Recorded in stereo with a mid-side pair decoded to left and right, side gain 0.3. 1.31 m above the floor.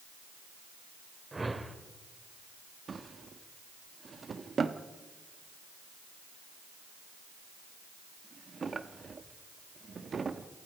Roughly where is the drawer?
Ahead right.